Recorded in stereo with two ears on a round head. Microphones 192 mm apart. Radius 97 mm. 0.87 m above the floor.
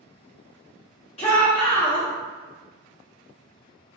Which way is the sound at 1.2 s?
30° left (ahead or behind).